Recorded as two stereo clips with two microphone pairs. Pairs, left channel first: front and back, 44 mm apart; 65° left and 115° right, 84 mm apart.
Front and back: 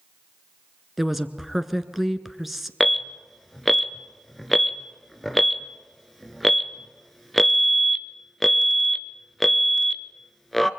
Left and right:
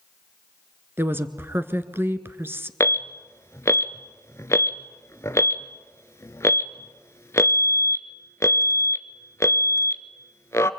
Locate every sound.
1.0 s a woman speaking: 100° right, 1.4 m
2.8 s an alarm: 85° left, 1.0 m